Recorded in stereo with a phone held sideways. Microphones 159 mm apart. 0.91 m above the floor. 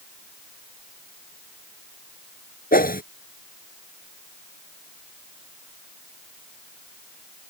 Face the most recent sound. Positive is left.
turn(degrees=65)  # may be behind; listen again after turning